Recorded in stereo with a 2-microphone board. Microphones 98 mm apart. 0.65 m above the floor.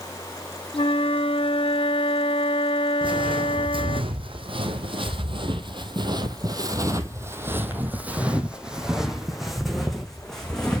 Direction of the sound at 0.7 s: 75° left (ahead or behind).